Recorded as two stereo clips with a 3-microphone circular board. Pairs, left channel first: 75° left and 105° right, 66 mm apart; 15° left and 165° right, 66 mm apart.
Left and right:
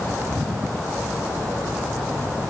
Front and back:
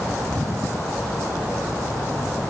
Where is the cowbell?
No cowbell in this recording.